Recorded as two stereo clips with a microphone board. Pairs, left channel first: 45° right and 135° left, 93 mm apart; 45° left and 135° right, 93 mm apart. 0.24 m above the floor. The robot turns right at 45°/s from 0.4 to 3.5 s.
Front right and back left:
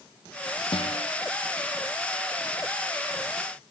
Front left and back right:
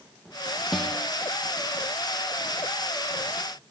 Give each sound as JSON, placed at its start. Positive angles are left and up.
{"t": 0.7, "sound": "a guitar", "azimuth_deg": -50, "distance_m": 4.5}